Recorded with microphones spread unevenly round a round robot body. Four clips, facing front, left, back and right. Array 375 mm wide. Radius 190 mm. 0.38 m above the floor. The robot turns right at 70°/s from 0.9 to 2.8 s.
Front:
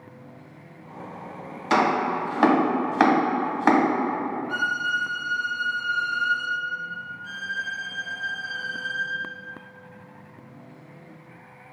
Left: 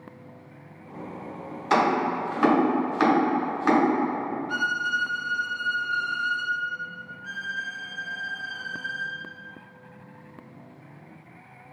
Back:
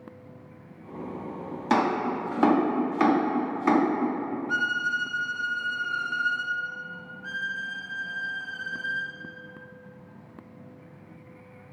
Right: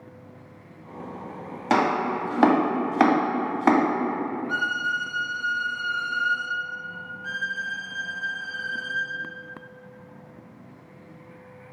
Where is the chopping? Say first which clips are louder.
Even, front 3 dB; 125° right, 2.5 m; by 3.8 s 45° right, 2.5 m.